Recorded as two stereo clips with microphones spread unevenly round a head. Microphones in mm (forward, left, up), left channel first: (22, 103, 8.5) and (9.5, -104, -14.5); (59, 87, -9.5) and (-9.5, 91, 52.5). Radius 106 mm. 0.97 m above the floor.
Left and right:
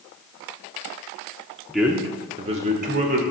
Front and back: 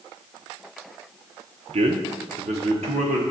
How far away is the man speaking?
About 0.7 m.